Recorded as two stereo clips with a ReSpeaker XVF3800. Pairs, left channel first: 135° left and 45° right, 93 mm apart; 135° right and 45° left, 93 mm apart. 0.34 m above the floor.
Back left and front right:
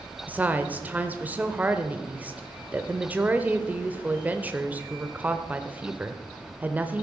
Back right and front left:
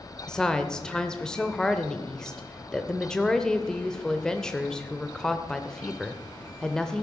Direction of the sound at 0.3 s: 65° right.